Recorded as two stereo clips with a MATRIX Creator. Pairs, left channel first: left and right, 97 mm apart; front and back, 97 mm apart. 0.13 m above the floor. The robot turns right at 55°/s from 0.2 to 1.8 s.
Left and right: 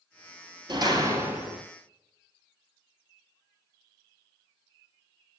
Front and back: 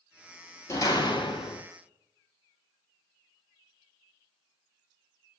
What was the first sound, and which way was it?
A door slam, 55° right.